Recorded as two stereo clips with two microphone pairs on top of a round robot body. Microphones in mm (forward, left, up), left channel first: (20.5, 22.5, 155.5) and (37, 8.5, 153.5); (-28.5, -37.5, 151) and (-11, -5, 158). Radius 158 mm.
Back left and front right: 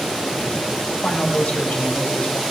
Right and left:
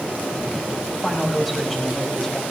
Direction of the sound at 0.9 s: 150° left.